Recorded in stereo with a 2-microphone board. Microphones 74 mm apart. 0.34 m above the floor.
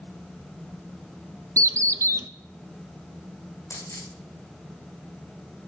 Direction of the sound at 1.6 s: 40° right (ahead or behind).